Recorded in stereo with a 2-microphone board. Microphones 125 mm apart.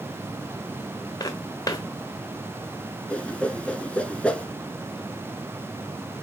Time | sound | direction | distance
1.2 | footsteps | 30° left (ahead or behind) | 1.0 m
3.1 | a whoosh | 10° left (ahead or behind) | 0.6 m